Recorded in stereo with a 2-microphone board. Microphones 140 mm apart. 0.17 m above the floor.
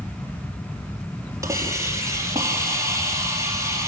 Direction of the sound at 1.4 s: 20° right (ahead or behind).